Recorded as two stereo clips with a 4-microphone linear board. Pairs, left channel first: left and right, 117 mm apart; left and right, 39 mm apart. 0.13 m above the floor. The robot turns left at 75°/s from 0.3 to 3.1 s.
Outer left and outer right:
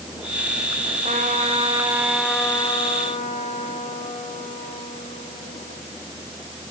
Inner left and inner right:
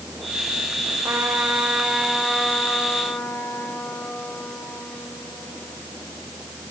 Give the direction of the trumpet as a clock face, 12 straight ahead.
3 o'clock.